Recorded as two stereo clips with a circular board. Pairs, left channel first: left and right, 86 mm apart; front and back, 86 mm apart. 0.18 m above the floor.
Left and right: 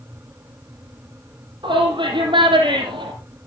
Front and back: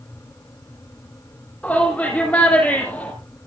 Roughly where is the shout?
Right.